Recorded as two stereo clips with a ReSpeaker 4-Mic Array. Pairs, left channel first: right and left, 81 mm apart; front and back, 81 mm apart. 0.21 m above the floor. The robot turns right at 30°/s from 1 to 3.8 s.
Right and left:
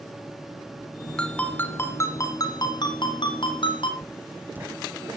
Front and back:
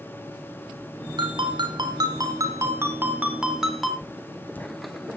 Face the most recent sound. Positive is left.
turn(degrees=45)